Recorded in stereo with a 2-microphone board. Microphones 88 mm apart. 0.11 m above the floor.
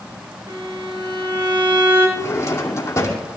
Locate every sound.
0.5 s a violin: 60° right (ahead or behind), 6 m
2.2 s a drawer: 35° left (ahead or behind), 2.5 m